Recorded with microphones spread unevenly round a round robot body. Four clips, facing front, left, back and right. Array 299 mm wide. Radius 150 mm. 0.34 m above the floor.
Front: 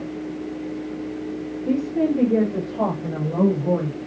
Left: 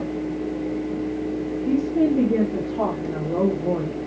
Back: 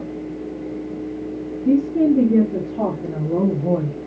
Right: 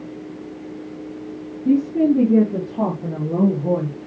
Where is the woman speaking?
120° right, 4.5 m; by 4.0 s 155° right, 3 m.